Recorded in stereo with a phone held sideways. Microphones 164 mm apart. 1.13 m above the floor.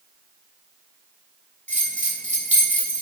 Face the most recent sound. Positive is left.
turn(degrees=-50)  # may be behind; listen again after turning